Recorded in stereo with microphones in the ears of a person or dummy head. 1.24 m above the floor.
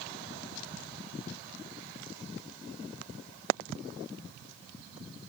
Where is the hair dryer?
I don't hear a hair dryer.